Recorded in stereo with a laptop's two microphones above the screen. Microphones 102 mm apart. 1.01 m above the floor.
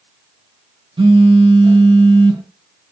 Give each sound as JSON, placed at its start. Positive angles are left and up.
{"t": 1.0, "sound": "a phone buzzing", "side_deg": -60, "distance_m": 0.8}